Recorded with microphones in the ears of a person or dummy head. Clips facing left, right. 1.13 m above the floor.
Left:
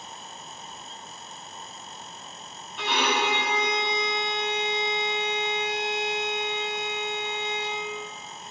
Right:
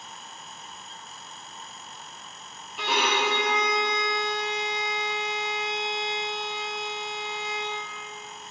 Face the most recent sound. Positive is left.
turn(degrees=0)  # may be behind; listen again after turning